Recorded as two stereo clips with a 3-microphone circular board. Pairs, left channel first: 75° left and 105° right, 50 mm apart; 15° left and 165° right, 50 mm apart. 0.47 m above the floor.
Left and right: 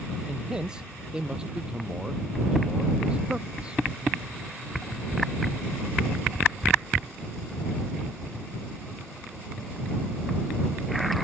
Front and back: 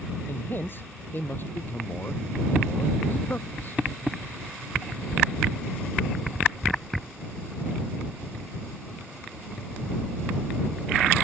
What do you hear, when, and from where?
0.3 s a man speaking: 30° right; by 3.8 s 35° right